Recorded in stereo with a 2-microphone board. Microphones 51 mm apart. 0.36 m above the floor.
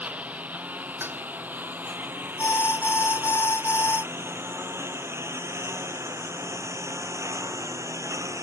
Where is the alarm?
60° left (ahead or behind).